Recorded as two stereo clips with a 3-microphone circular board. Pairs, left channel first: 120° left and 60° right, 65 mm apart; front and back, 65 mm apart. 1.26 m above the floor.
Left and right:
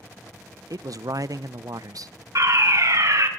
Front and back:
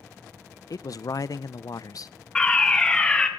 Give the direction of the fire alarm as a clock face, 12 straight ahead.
2 o'clock.